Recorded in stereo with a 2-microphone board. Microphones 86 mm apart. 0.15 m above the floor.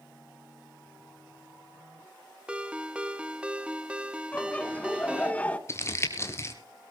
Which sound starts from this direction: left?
Crumpling, at 5.7 s.